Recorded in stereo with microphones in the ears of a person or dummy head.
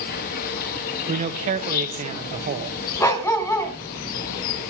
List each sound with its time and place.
0.0 s an insect: 50° left (ahead or behind), 1.1 m
1.1 s a man speaking: 35° right (ahead or behind), 1.9 m
3.0 s a dog barking: 20° left (ahead or behind), 3.5 m